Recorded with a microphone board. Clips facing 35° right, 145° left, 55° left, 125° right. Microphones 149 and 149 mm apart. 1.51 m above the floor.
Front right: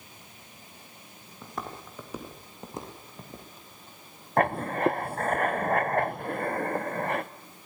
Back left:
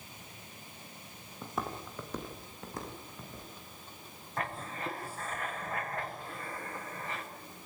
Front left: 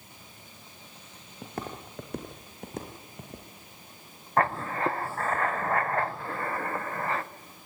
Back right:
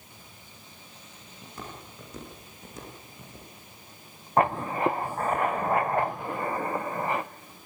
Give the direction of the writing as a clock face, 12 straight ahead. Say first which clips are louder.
Front right 13 dB, back right 2 dB; 2 o'clock.